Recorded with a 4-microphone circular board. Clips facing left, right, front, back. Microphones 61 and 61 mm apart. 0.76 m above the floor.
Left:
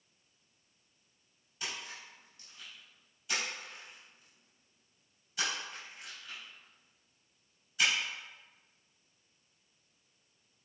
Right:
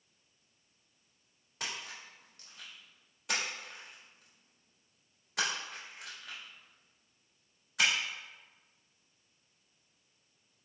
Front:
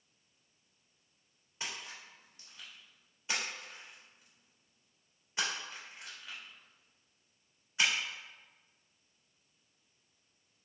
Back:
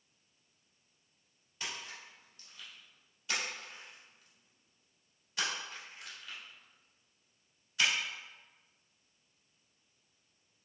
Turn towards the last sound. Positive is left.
turn(degrees=-65)